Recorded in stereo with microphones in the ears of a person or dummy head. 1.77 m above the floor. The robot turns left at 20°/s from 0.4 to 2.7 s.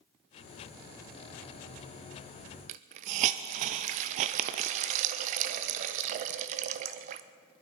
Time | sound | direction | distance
2.7 | a hiss | 40° right (ahead or behind) | 0.6 m